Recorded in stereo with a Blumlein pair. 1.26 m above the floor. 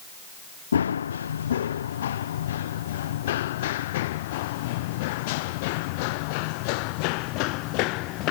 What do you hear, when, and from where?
0.7 s running footsteps: 70° left; by 8.3 s 40° left